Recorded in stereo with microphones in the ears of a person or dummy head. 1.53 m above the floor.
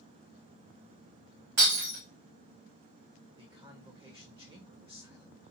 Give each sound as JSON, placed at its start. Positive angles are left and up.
{"t": 1.6, "sound": "breaking glass", "side_deg": -60, "distance_m": 1.9}
{"t": 3.4, "sound": "a man speaking", "side_deg": -30, "distance_m": 0.7}